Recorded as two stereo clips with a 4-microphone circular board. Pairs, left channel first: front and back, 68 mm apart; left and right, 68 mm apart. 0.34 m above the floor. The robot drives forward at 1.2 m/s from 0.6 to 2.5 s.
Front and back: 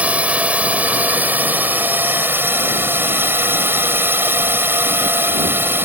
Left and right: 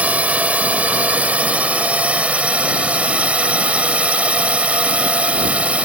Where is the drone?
135° right; by 5.9 s 150° right.